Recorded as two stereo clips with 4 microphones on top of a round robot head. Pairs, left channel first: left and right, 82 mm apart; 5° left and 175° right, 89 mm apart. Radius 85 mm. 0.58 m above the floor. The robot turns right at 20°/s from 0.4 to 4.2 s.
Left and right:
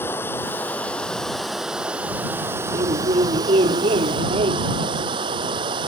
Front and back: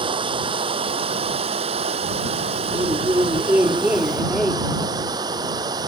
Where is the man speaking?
120° right; by 4.7 s 90° right.